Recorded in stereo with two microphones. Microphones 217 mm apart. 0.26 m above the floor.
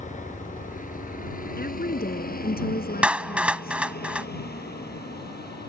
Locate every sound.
0.0 s a helicopter: 35° left (ahead or behind); by 5.7 s 45° left (ahead or behind)
1.6 s a woman speaking: 45° left (ahead or behind)
3.0 s a clap: 5° right (ahead or behind)